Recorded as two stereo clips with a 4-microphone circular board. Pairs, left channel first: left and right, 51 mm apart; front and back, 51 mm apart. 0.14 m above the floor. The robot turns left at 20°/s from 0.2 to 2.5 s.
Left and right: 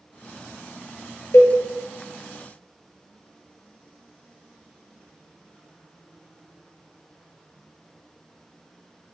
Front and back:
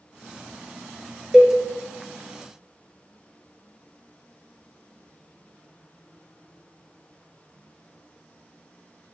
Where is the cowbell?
110° left, 0.6 m; by 1.6 s 105° left, 0.6 m.